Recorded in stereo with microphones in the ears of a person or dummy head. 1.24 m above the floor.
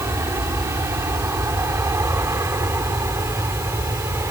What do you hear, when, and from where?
0.0 s an aircraft: 10° right (ahead or behind)